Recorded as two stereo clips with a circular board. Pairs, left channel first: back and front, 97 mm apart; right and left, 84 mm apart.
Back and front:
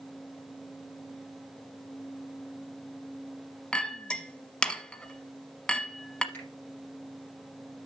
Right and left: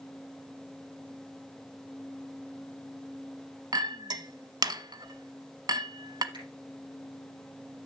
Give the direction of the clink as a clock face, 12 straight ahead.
9 o'clock.